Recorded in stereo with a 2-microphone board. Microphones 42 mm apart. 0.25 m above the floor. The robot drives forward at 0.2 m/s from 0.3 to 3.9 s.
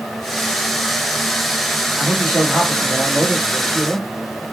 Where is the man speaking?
Centre (ahead or behind), 1.7 m.